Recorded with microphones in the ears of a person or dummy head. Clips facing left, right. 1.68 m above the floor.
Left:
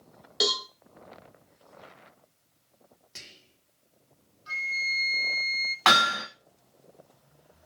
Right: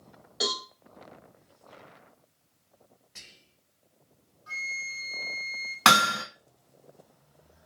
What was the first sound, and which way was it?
A cowbell, 45° left (ahead or behind).